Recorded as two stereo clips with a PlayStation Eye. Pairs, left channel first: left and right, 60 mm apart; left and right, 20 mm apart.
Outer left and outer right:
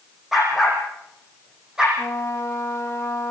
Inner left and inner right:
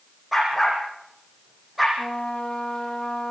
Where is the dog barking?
5° right (ahead or behind), 9.5 m; by 1.9 s 10° right (ahead or behind), 9.5 m.